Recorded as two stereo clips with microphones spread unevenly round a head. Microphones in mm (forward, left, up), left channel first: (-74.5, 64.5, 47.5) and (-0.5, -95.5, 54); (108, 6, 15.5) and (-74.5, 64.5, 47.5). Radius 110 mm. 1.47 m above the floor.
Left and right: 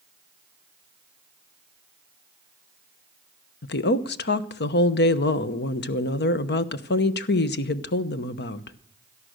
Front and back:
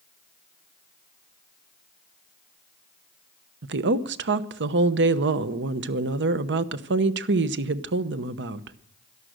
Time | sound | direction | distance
3.6 | a woman speaking | 140° left | 1.0 m